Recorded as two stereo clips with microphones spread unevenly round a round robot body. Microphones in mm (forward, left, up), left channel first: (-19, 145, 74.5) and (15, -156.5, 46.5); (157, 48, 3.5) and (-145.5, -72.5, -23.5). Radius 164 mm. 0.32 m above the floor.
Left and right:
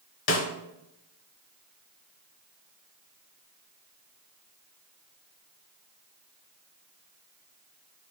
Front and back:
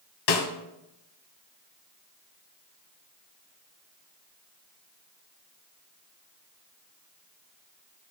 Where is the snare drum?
45° left, 1.6 m.